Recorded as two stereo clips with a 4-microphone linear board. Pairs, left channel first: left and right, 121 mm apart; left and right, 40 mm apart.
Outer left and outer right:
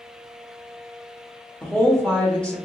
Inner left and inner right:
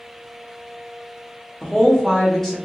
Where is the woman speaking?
10° left (ahead or behind), 0.8 m.